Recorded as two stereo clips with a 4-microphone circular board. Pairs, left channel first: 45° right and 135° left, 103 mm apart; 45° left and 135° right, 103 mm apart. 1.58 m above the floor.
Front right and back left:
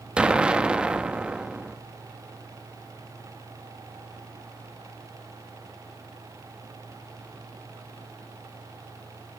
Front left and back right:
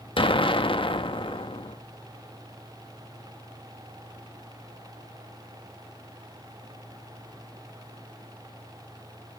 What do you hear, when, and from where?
0.2 s an explosion: 60° left, 1.3 m